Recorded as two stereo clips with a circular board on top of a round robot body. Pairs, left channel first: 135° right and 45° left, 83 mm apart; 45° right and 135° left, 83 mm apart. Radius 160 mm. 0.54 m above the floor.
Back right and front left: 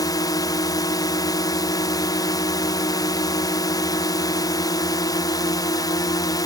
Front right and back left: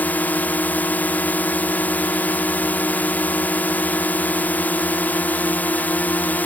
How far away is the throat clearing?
I don't hear throat clearing.